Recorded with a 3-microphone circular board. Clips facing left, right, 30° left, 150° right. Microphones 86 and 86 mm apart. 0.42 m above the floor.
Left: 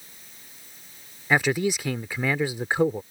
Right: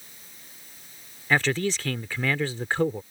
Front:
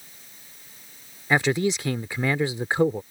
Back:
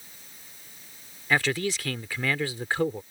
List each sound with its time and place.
1.3 s a man speaking: 40° left